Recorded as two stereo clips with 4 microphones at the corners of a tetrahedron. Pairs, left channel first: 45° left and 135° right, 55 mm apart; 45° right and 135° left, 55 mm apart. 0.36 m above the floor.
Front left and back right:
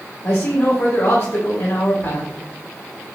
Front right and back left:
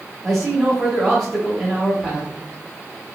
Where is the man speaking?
30° left, 1.6 m.